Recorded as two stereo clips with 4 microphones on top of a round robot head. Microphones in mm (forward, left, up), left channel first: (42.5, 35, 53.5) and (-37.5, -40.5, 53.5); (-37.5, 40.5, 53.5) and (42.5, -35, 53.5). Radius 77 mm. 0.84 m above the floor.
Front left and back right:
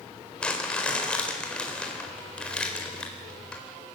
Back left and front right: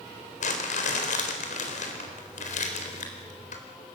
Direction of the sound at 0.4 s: 125° left.